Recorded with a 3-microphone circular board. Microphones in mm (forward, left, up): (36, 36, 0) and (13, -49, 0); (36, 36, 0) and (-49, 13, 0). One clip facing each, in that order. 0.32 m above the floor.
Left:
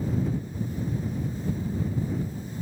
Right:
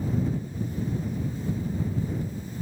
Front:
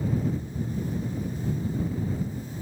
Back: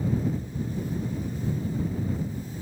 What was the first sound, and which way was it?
Only background noise.